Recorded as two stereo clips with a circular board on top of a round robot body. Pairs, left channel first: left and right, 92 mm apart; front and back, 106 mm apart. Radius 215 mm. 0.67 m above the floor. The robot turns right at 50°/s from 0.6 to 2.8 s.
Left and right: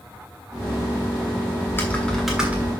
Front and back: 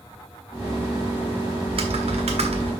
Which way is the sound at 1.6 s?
150° left.